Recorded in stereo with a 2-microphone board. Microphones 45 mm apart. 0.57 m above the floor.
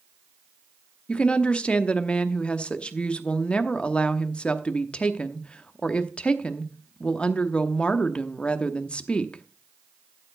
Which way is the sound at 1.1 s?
25° left (ahead or behind).